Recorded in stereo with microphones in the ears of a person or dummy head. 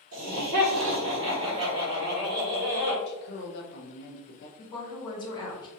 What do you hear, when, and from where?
0.1 s laughter: 60° right (ahead or behind), 1.2 m; by 3.0 s 5° left (ahead or behind), 1.4 m
3.1 s a woman speaking: 60° left (ahead or behind), 0.7 m
4.6 s a woman speaking: 20° left (ahead or behind), 1.6 m